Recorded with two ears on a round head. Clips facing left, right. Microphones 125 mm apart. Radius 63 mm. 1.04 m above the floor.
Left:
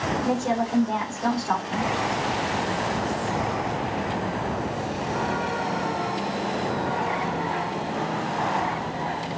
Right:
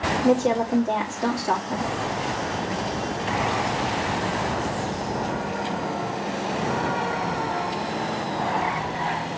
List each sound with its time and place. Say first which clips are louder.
0.2 s a woman speaking: right 6 dB; 70° right (ahead or behind), 2 m